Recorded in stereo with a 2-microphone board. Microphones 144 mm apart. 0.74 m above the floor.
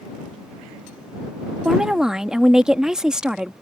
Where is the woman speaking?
5° right (ahead or behind).